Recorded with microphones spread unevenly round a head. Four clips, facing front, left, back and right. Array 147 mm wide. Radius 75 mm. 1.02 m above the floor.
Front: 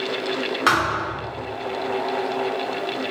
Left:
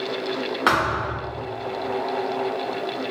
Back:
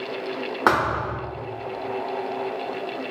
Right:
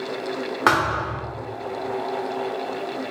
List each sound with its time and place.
0.7 s a thud: 150° right, 0.7 m